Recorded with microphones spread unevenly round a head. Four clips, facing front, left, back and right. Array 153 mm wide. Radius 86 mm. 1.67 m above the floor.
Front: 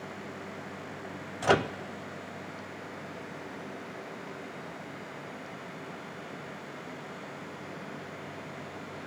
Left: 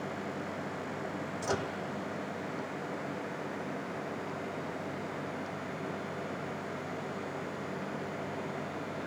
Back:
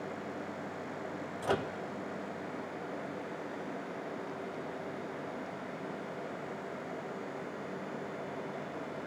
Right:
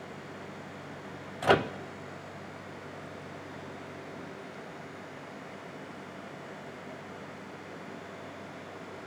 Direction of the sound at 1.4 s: 60° right.